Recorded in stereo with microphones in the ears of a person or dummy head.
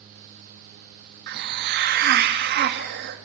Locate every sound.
1.3 s a hiss: 55° right (ahead or behind), 1.8 m